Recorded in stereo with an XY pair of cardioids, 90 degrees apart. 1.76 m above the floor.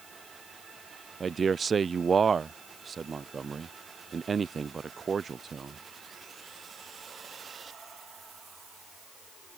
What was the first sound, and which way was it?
A man speaking, 45° right.